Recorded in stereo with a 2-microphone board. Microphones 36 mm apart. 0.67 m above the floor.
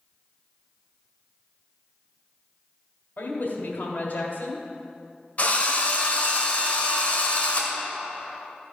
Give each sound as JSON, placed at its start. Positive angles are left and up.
{"t": 3.2, "sound": "a woman speaking", "side_deg": 60, "distance_m": 2.0}
{"t": 5.4, "sound": "a drill", "side_deg": 45, "distance_m": 1.6}